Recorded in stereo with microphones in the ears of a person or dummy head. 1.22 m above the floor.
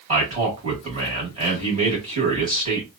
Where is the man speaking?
30° right (ahead or behind), 1.4 m.